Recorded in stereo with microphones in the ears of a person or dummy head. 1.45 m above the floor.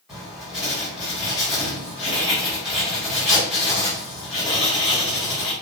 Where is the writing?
Centre (ahead or behind), 1.3 m.